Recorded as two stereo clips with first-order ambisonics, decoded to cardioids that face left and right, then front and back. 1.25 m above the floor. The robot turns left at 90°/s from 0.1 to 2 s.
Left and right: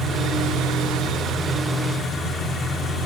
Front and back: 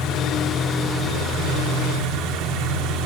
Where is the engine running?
35° right, 3.5 m; by 3.1 s 155° left, 3.5 m.